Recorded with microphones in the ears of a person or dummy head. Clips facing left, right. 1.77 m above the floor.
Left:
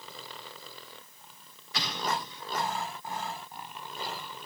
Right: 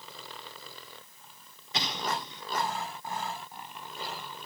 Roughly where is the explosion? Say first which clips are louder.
Left 1 dB; centre.